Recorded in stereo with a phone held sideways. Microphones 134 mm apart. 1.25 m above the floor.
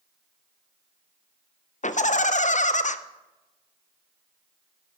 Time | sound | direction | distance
1.8 | laughter | 70° left (ahead or behind) | 0.6 m